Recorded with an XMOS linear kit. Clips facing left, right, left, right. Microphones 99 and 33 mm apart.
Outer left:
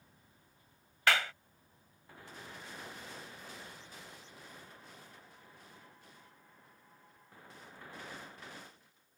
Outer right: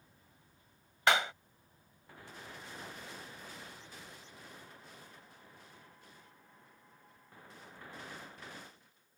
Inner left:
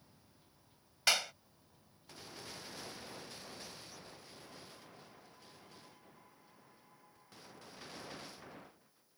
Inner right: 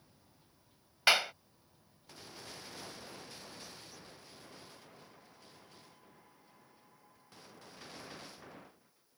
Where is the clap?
25° right (ahead or behind).